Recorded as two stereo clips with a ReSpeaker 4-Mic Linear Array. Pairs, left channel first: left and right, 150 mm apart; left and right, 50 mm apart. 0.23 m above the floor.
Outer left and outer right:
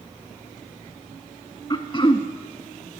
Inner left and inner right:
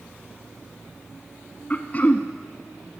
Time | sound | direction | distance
1.7 | throat clearing | 35° left (ahead or behind) | 0.7 m